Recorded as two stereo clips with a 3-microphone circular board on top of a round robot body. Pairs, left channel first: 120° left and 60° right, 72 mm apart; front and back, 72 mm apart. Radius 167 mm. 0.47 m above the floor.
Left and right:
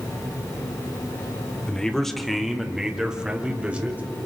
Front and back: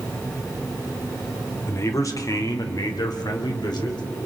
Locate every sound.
1.7 s a man speaking: 40° left, 1.8 m; by 4.0 s 10° left, 2.5 m